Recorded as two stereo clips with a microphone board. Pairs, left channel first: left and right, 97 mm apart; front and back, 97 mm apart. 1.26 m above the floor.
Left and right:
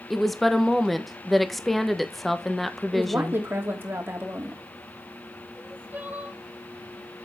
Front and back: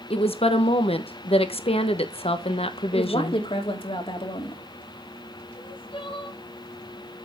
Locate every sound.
0.1 s a woman speaking: straight ahead, 1.1 m
2.9 s a woman speaking: 20° right, 3 m
5.5 s crying: 20° right, 1.9 m